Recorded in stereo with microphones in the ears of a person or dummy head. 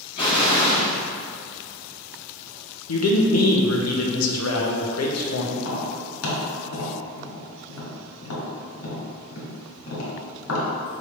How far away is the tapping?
About 1.1 m.